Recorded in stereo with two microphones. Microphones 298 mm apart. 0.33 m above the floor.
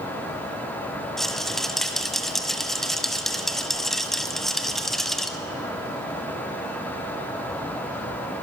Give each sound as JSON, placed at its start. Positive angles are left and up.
{"t": 1.2, "sound": "a rattle", "side_deg": 0, "distance_m": 1.0}